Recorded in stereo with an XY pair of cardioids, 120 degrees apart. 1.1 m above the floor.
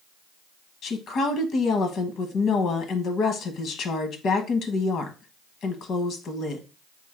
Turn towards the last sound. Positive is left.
turn(degrees=60)